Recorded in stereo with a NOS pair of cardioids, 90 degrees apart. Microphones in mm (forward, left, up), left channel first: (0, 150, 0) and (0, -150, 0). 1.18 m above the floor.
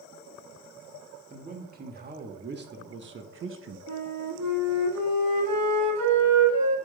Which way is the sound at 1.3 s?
30° right.